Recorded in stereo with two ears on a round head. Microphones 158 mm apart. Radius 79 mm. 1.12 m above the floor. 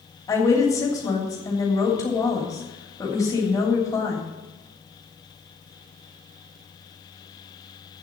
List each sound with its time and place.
0.3 s a woman speaking: 20° left (ahead or behind), 3 m